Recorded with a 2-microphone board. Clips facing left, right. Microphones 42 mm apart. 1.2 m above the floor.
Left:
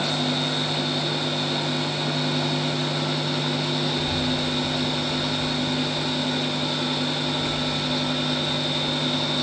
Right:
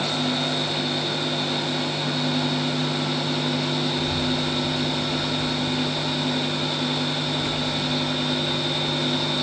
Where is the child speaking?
45° left (ahead or behind), 3 m; by 9.3 s 80° right, 5.5 m.